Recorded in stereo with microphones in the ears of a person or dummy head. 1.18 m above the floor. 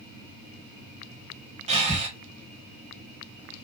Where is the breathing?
35° right (ahead or behind), 0.9 m.